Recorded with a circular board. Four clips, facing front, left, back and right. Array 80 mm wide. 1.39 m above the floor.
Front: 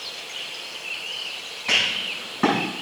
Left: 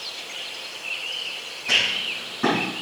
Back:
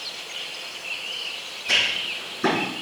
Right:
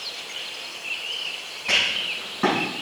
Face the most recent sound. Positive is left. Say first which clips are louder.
# even, even
turn(degrees=-20)